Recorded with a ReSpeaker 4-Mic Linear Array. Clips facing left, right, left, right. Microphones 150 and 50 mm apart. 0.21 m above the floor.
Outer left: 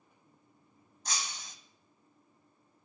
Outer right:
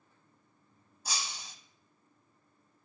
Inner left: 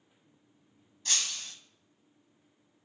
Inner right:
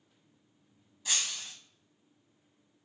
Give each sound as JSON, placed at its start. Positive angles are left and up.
{"t": 1.1, "sound": "breaking glass", "side_deg": -10, "distance_m": 0.9}